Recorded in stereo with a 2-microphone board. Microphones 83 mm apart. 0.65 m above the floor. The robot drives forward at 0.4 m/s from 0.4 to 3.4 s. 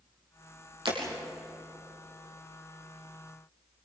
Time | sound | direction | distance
0.8 | breaking glass | 85° right | 5.5 m